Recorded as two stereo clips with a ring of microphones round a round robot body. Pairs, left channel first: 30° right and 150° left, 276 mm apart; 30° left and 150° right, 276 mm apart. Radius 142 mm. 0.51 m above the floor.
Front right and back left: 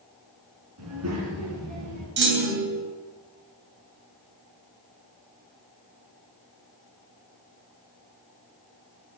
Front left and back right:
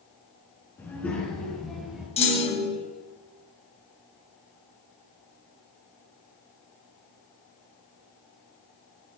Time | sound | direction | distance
0.8 | a child speaking | 110° left | 5 m
2.2 | a clunk | 100° left | 3.5 m